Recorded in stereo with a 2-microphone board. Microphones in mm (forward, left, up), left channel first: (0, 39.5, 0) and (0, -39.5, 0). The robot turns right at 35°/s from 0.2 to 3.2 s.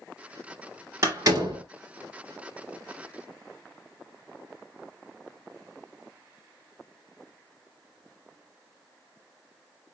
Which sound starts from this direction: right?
A door slam, at 1.0 s.